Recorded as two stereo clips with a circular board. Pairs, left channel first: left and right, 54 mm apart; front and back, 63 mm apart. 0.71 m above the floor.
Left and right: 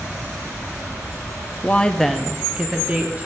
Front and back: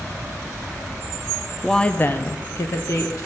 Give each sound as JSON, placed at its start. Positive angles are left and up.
{"t": 1.6, "sound": "a woman speaking", "azimuth_deg": 80, "distance_m": 0.6}